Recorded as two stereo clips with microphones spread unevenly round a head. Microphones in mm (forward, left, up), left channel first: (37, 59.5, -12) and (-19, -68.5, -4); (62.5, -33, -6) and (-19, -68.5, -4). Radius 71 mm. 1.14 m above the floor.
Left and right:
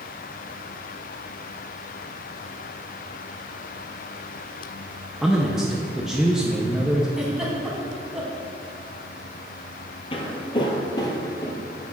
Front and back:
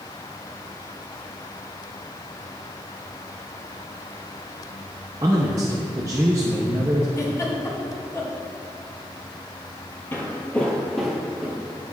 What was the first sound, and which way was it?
A man speaking, 155° left.